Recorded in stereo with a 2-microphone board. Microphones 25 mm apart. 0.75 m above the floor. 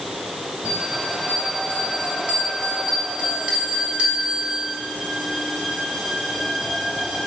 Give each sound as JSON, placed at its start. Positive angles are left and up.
{"t": 0.7, "sound": "a bell", "side_deg": -65, "distance_m": 3.0}